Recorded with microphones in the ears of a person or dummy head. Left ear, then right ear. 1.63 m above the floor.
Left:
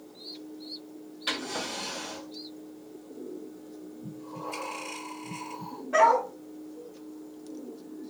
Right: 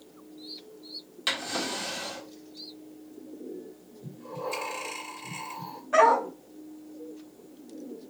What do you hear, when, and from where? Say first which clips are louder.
1.3 s a drawer: right 2 dB; 45° right (ahead or behind), 2.5 m
4.0 s breathing: right 4 dB; 35° right (ahead or behind), 3.5 m
5.9 s a dog barking: right 1 dB; 25° right (ahead or behind), 3 m